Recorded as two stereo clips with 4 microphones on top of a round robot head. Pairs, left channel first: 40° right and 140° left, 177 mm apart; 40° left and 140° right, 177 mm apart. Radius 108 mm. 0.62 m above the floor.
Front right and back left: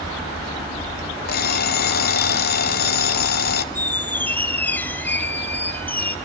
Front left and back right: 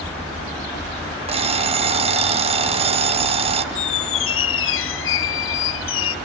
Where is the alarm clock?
80° right, 1.2 m.